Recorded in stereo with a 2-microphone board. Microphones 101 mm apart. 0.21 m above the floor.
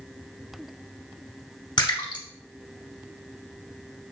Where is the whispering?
No whispering in this recording.